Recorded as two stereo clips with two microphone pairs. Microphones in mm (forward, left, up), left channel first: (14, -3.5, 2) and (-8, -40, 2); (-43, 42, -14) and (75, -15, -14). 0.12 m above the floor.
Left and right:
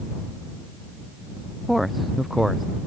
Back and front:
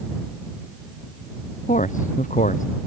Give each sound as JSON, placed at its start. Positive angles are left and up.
{"t": 1.7, "sound": "a man speaking", "azimuth_deg": 155}